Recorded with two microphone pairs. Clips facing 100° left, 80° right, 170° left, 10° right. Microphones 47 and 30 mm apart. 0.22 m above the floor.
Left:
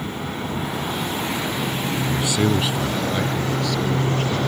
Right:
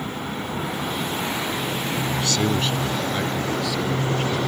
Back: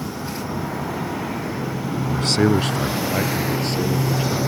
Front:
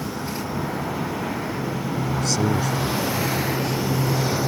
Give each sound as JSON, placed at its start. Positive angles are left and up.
{"t": 2.1, "sound": "a man speaking", "azimuth_deg": 170}